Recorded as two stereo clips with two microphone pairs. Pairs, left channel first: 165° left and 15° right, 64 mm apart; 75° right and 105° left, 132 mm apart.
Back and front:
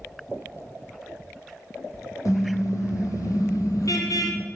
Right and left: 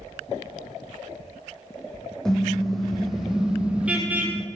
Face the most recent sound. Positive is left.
turn(degrees=180)